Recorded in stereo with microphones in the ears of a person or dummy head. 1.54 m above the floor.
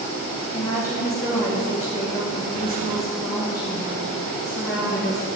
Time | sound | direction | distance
0.5 | a woman speaking | 60° left (ahead or behind) | 2.5 m